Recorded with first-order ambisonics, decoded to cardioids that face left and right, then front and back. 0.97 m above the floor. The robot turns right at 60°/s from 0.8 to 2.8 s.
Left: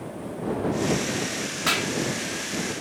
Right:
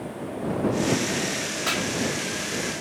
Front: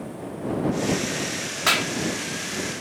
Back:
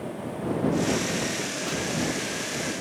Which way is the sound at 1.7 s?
10° left.